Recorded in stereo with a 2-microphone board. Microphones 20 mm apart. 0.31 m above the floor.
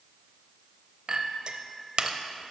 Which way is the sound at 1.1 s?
40° right (ahead or behind).